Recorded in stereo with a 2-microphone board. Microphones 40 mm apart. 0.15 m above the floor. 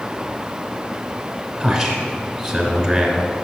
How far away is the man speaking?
About 1.7 m.